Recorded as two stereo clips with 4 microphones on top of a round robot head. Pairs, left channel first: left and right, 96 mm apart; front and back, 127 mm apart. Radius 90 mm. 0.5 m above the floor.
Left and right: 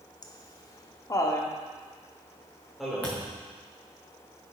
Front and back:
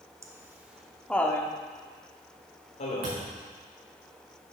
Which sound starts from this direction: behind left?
Laughter, at 0.2 s.